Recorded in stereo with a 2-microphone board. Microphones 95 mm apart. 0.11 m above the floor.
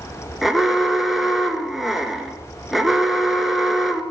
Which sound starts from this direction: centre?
An alarm, at 0.4 s.